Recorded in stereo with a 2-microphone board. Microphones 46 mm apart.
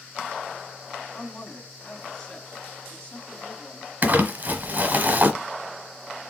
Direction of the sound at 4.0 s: 45° right (ahead or behind).